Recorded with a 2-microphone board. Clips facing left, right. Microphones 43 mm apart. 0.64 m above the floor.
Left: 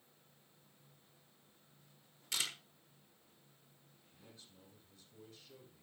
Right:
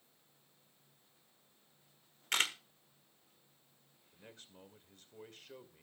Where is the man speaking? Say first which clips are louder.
Right 5 dB; 55° right (ahead or behind), 2 m.